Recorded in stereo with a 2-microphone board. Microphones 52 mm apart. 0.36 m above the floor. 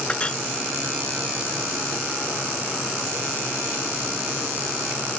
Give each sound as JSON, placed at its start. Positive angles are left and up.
{"t": 0.1, "sound": "a clink", "side_deg": 25}